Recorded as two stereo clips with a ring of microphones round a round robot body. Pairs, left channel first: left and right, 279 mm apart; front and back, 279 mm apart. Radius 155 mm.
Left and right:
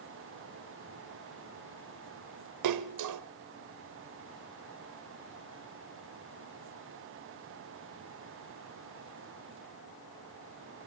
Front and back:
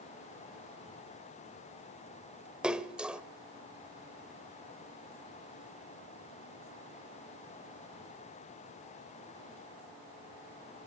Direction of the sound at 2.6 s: 95° right.